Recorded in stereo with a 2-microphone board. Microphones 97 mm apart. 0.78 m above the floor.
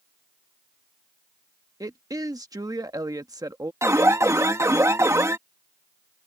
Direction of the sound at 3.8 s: 30° right (ahead or behind).